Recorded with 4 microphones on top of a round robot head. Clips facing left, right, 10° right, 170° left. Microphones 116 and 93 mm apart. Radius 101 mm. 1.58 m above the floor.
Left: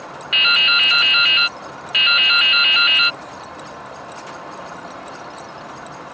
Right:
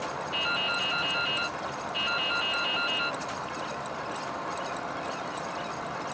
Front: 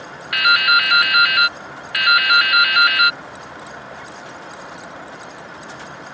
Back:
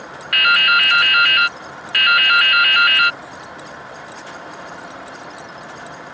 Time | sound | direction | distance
0.3 | dripping | 70° left | ?